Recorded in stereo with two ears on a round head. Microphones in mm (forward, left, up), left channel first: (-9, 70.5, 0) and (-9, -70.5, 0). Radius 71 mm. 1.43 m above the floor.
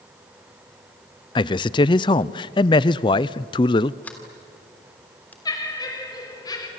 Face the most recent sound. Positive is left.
turn(degrees=25)  # may be behind; listen again after turning